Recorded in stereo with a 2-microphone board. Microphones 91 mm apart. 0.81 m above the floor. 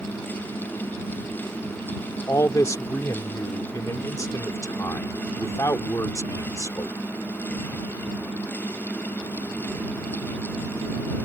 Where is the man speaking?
35° left (ahead or behind).